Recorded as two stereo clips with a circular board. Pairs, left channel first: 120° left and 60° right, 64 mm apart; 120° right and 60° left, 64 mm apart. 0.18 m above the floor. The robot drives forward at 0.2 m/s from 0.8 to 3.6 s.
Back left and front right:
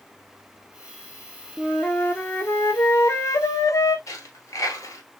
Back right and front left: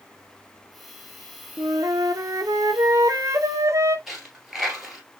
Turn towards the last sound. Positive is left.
turn(degrees=145)